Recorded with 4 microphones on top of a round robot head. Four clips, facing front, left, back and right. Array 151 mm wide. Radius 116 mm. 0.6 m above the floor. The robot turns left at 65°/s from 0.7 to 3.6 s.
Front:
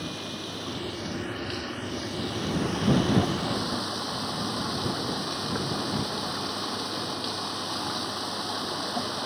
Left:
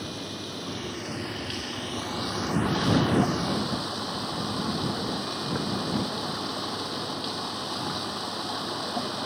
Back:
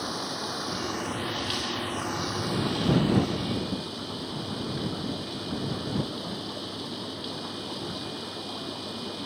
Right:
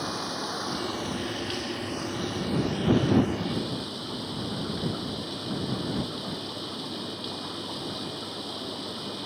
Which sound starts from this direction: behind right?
Running water, at 0.0 s.